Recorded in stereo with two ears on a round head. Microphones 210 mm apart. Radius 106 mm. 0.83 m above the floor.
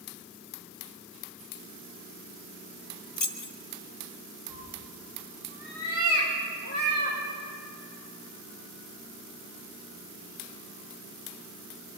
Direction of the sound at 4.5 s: 45° left (ahead or behind).